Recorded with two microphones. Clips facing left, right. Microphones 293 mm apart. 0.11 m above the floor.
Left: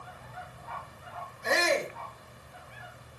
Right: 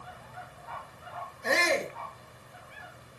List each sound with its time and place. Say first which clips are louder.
1.4 s a shout: even; 65° right (ahead or behind), 4 m